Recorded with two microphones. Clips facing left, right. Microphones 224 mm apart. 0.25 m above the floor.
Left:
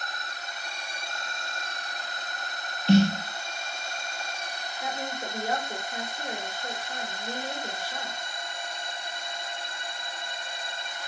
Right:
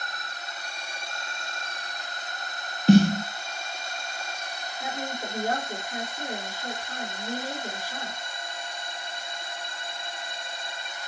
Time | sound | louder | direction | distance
2.9 | a snare drum | right 3 dB | 50° right (ahead or behind) | 0.5 m
4.8 | a woman speaking | right 1 dB | 60° right (ahead or behind) | 2.5 m